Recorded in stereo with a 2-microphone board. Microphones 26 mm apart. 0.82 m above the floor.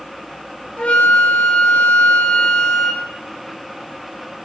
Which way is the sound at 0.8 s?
65° left (ahead or behind).